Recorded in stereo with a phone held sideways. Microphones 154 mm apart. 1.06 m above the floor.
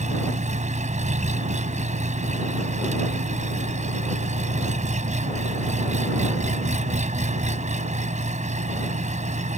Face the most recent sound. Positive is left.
turn(degrees=-50)  # may be behind; listen again after turning